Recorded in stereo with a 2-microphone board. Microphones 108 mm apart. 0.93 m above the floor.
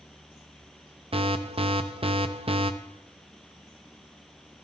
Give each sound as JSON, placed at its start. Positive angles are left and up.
{"t": 1.1, "sound": "an alarm", "side_deg": -55, "distance_m": 0.7}